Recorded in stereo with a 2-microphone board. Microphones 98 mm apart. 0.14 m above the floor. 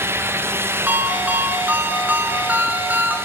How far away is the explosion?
I don't hear an explosion.